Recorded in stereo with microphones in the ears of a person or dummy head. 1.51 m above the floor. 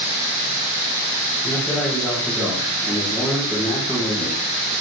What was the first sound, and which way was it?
A man speaking, centre (ahead or behind).